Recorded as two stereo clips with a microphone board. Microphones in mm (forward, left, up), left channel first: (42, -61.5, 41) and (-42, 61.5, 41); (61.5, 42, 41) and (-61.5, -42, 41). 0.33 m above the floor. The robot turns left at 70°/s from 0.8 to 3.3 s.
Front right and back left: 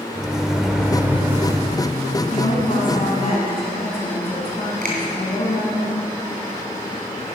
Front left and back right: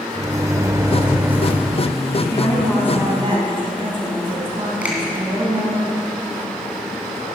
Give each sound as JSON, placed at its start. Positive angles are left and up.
{"t": 0.1, "sound": "a microwave", "azimuth_deg": -155, "distance_m": 0.6}
{"t": 2.3, "sound": "a woman speaking", "azimuth_deg": -25, "distance_m": 3.5}
{"t": 4.8, "sound": "a finger snap", "azimuth_deg": 135, "distance_m": 2.5}